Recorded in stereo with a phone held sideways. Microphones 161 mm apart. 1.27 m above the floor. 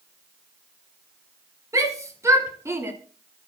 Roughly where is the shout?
Centre.